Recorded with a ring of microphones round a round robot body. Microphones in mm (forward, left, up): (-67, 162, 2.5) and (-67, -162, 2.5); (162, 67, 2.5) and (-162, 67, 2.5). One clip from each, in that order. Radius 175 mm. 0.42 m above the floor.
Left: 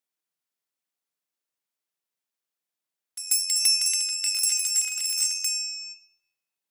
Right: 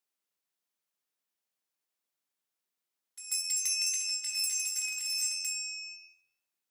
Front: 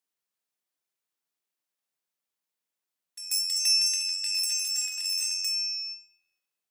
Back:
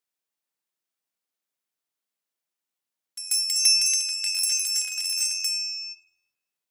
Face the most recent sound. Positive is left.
turn(degrees=110)